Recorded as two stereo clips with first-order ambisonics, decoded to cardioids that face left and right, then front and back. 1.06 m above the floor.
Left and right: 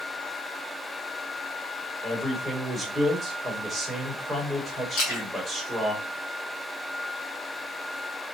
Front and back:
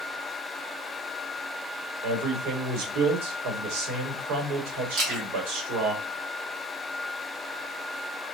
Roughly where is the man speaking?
Behind.